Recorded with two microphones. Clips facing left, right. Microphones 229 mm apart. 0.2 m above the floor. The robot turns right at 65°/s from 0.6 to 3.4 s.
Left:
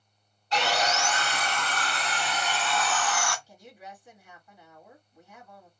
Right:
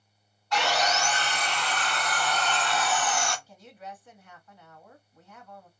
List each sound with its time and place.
0.5 s sawing: 40° left, 1.7 m; by 3.4 s 140° right, 1.7 m
3.5 s a woman speaking: 10° left (ahead or behind), 1.8 m